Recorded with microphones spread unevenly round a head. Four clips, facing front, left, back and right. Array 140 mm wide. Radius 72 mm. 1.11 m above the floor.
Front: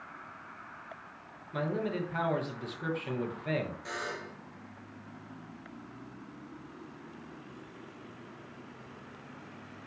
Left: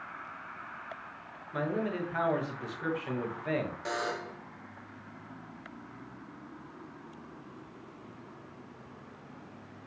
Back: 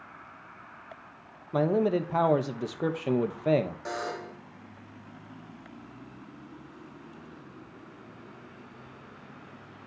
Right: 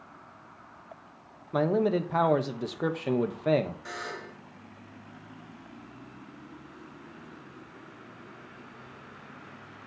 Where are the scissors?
I don't hear scissors.